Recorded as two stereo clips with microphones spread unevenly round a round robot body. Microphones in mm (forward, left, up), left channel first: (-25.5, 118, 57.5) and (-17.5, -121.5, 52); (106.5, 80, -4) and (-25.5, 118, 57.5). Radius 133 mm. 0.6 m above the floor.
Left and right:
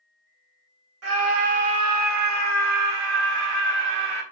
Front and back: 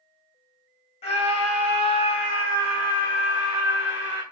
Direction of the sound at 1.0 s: 55° right.